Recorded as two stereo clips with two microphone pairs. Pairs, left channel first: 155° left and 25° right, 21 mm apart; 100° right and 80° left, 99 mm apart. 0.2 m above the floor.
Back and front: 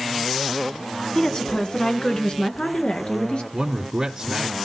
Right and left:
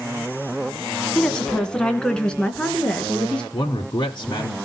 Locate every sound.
1.1 s a woman speaking: 175° right, 1.4 m; by 3.4 s straight behind, 3 m
3.5 s a man speaking: 75° right, 1.5 m